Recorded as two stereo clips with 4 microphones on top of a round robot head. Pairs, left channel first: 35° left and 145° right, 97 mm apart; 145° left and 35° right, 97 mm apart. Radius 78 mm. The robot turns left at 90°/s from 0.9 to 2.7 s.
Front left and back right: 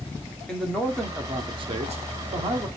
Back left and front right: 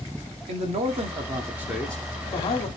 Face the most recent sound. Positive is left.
turn(degrees=155)